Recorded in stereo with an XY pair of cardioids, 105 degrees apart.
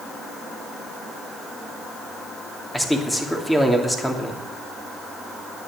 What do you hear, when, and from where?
2.7 s a man speaking: 10° left, 3 m